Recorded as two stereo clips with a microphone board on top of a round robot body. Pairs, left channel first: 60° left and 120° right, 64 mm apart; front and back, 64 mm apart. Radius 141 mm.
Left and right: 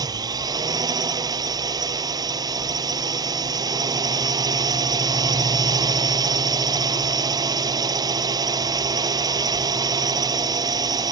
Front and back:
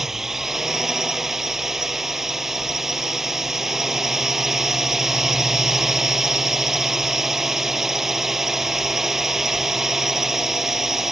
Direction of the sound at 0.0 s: 95° right.